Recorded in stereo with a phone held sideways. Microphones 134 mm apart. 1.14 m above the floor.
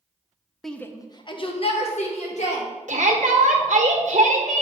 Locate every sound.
0.6 s a shout: centre (ahead or behind), 0.6 m; by 2.7 s 65° left (ahead or behind), 1.7 m
2.9 s a shout: 70° right (ahead or behind), 1.2 m